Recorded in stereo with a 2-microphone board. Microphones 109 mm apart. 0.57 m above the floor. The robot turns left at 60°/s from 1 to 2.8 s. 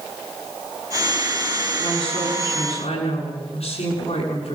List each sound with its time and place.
1.8 s a woman speaking: 140° left, 7.5 m; by 4.5 s 80° left, 7.5 m